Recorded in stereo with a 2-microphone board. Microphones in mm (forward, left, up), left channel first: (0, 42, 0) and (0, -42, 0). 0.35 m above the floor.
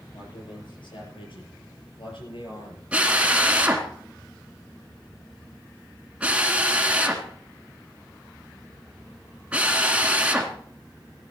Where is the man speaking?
75° left (ahead or behind), 8 m.